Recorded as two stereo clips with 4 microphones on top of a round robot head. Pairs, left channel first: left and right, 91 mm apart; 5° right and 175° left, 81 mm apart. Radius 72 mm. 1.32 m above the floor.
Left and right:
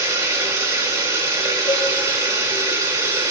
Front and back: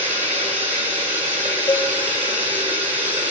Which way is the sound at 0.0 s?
140° right.